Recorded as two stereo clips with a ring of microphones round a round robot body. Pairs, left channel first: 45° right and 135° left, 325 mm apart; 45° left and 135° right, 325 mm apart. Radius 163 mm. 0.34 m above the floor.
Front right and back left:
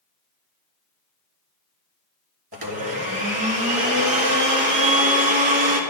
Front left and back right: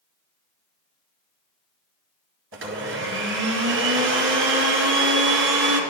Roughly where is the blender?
Behind.